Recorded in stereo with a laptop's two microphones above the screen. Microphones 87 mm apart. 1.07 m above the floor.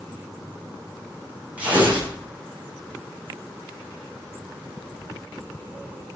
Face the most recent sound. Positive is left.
turn(degrees=-15)  # may be behind; listen again after turning